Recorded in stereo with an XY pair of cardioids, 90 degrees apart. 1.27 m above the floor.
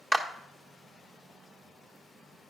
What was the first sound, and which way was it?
A clap, 25° right.